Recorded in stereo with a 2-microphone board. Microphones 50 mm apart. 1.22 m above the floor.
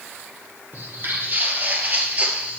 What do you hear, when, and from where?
0.7 s footsteps: 50° right (ahead or behind), 1.9 m; by 2.6 s 25° right (ahead or behind), 1.3 m